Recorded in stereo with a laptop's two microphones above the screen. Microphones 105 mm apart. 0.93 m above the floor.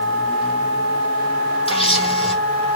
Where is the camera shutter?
65° left (ahead or behind), 3.5 m.